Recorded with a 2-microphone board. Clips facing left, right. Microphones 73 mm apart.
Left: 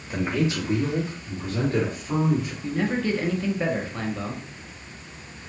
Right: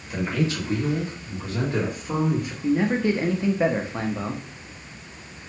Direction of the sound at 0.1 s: 30° left (ahead or behind).